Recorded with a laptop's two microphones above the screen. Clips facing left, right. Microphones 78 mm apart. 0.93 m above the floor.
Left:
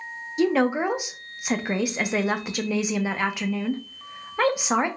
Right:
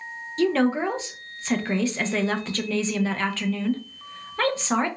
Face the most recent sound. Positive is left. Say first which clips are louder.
# even
turn(degrees=15)  # may be behind; listen again after turning